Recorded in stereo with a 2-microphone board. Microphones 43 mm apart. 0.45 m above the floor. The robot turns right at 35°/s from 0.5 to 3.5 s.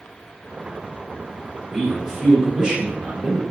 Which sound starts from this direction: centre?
A man speaking, at 1.7 s.